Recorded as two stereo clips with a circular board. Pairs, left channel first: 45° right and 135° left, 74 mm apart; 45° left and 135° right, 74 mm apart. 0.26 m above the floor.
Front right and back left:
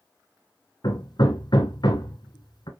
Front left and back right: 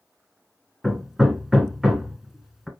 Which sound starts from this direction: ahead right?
Hammering, at 0.8 s.